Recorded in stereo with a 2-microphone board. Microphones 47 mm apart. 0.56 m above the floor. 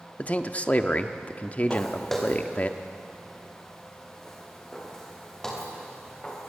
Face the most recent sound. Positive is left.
turn(degrees=15)  # may be behind; listen again after turning